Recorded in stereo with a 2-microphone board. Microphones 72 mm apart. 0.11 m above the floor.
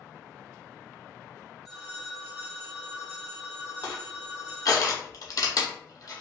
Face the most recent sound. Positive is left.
turn(degrees=55)  # may be behind; listen again after turning